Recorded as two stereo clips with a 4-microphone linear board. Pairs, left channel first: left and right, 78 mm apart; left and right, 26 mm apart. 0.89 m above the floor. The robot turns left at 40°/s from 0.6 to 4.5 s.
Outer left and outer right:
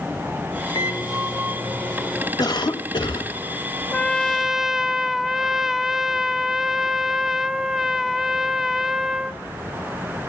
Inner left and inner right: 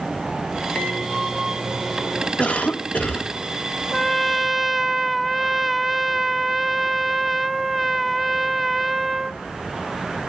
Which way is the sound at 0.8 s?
60° left.